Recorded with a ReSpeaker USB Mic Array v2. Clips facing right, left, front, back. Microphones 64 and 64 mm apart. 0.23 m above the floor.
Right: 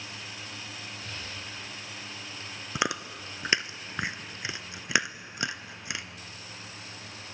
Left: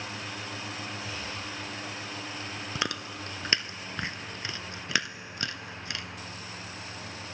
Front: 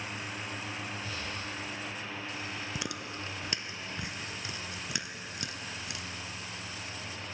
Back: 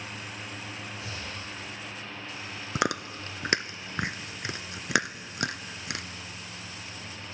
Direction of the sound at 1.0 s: 175° left.